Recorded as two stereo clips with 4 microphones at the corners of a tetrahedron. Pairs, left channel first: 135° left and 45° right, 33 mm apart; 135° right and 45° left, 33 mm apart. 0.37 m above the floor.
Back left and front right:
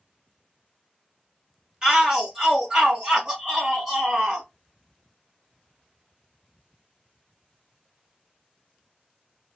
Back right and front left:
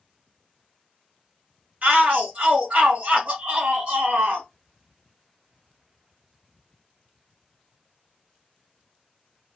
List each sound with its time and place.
1.8 s a shout: 15° left, 1.8 m